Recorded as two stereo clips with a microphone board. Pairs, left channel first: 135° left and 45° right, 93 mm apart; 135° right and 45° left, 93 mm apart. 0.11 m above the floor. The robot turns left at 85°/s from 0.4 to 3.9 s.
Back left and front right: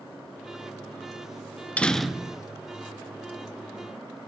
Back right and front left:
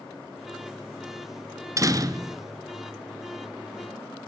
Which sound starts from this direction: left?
A door slam, at 1.8 s.